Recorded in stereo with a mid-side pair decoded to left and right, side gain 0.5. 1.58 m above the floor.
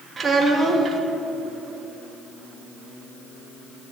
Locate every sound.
0.2 s a child speaking: 35° right, 2 m